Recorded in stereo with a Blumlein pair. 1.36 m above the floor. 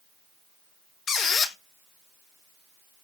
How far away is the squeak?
About 0.7 m.